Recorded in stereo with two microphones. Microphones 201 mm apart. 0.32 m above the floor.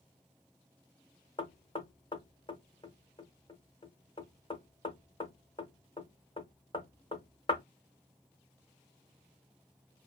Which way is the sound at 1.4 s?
25° left (ahead or behind).